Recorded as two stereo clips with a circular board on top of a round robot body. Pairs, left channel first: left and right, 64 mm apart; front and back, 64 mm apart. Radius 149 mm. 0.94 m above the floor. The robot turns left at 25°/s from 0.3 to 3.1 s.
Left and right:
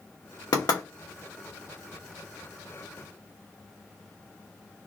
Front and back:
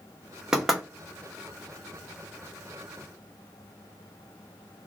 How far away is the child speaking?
No child speaking in this recording.